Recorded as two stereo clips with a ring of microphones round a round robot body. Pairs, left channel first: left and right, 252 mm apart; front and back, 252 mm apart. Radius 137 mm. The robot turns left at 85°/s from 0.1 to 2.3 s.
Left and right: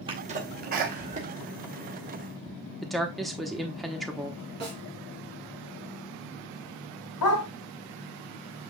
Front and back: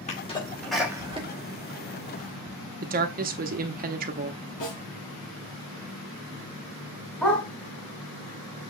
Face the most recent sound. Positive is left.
turn(degrees=90)